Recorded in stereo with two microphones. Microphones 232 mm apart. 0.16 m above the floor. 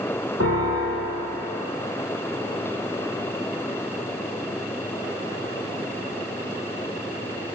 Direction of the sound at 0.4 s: 75° left (ahead or behind).